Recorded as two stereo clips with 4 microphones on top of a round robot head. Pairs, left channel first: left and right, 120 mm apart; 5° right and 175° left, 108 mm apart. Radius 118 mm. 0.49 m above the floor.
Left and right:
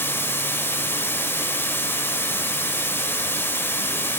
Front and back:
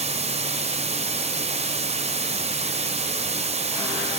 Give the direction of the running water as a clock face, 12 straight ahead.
7 o'clock.